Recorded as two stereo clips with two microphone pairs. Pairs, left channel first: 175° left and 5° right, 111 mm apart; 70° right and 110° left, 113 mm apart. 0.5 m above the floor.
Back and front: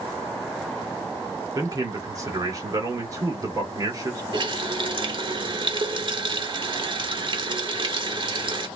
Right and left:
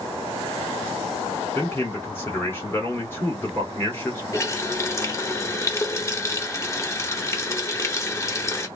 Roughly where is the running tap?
Ahead.